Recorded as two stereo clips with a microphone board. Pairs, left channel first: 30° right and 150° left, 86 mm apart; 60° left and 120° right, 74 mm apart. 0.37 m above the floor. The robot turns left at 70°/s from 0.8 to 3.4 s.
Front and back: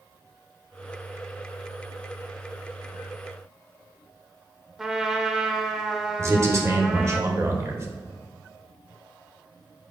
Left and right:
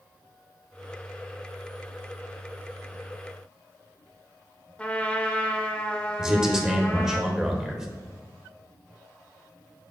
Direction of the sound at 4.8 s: 80° left.